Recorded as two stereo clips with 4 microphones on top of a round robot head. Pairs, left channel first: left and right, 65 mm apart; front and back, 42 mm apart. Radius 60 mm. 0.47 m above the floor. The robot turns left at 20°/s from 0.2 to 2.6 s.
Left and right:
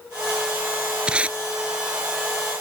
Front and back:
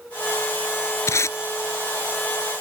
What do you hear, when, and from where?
1.1 s tape being pulled: 10° right; by 1.4 s 20° right